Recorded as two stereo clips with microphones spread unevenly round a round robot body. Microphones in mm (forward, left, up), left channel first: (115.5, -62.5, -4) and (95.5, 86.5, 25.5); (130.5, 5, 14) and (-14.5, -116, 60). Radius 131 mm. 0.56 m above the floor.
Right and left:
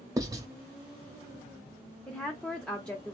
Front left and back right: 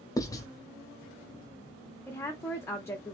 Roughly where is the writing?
Ahead left.